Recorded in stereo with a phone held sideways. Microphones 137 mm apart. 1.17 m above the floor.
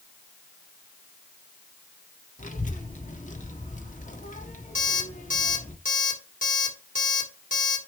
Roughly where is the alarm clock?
Left.